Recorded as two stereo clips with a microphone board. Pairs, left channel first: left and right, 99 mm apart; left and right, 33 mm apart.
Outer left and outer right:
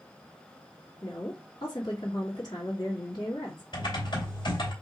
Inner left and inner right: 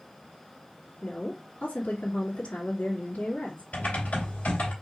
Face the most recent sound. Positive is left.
turn(degrees=50)  # may be behind; listen again after turning